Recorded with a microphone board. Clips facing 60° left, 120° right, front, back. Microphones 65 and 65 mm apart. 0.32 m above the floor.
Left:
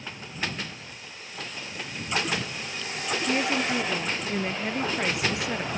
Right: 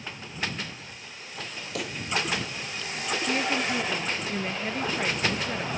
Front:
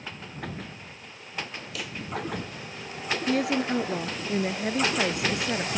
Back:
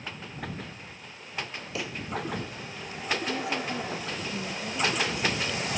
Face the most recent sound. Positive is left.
turn(degrees=-20)